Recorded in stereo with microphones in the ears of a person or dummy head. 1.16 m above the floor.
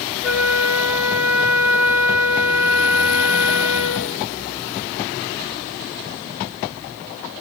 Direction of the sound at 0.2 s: 5° right (ahead or behind).